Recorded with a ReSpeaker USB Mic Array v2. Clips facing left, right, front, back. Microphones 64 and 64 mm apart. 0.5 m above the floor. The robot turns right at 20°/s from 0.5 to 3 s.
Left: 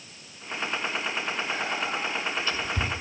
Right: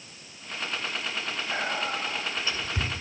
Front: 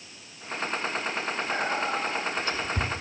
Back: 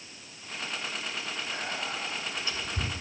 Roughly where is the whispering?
Ahead right.